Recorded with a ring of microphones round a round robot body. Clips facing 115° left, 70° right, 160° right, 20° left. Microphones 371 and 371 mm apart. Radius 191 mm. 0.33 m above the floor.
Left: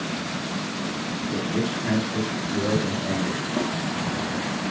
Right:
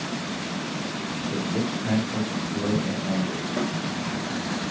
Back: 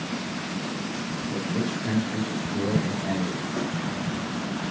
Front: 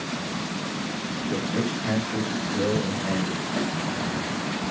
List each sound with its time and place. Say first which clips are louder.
1.3 s a man speaking: left 1 dB, front 2 dB; 85° left, 2.5 m; by 3.4 s 105° left, 1.6 m
3.6 s a snare drum: left 1 dB, front 2 dB; 70° left, 1.9 m